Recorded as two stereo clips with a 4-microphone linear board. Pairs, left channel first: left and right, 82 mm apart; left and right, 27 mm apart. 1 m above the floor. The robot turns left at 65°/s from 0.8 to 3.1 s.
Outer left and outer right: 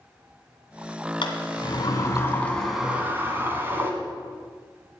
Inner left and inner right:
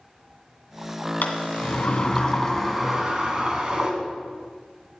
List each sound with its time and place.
1.2 s a sliding door: 100° left, 2 m; by 3.9 s 25° right, 2 m